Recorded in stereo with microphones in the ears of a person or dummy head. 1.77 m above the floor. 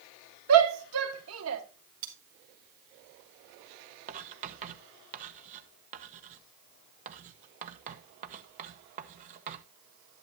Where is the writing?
40° right (ahead or behind), 1.3 m.